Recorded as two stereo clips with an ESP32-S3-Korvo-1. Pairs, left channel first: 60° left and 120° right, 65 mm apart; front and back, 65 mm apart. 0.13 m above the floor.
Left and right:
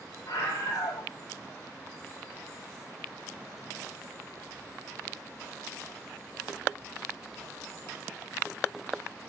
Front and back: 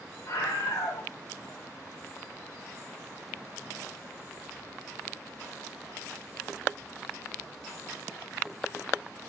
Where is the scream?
30° left, 7.5 m.